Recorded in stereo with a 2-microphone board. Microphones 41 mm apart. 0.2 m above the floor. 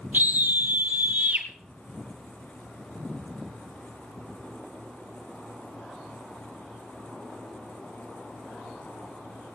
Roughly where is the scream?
Right.